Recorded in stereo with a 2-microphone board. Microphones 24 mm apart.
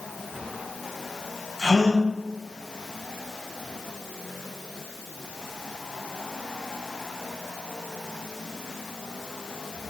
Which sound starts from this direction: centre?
A gasp, at 1.6 s.